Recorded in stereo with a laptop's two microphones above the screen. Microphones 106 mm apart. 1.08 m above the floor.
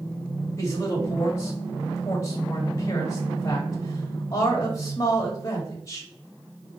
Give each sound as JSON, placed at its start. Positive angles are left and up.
{"t": 0.6, "sound": "a man speaking", "side_deg": 30, "distance_m": 1.4}